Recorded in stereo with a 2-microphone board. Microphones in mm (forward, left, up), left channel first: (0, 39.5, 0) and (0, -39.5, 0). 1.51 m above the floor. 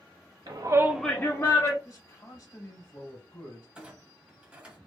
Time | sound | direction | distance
0.5 | a shout | 60° right (ahead or behind) | 0.7 m
1.8 | a man speaking | 55° left (ahead or behind) | 1.5 m
3.8 | a clunk | 15° right (ahead or behind) | 1.0 m